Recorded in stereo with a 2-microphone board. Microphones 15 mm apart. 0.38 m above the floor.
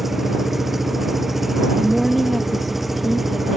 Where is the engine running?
10° right (ahead or behind).